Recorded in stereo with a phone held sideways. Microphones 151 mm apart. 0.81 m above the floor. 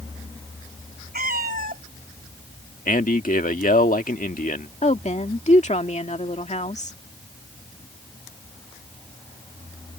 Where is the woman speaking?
50° left (ahead or behind).